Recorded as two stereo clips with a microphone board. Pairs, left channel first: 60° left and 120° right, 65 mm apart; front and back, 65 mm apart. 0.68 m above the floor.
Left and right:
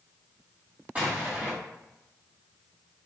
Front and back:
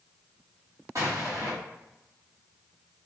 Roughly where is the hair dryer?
I don't hear a hair dryer.